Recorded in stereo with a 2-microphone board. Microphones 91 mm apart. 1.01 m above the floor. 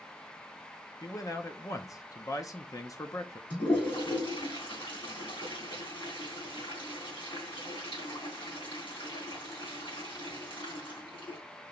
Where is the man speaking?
40° left (ahead or behind), 0.7 m.